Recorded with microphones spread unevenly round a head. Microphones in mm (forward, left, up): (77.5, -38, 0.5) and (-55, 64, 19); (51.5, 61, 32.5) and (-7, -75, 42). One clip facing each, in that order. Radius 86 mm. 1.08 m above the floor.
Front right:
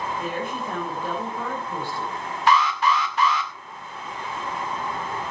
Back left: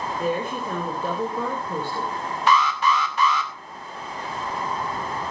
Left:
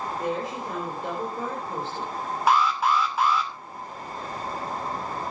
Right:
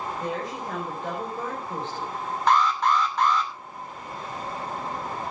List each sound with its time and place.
0.2 s a woman speaking: 150° left, 4.5 m
2.5 s an alarm: 150° left, 2.5 m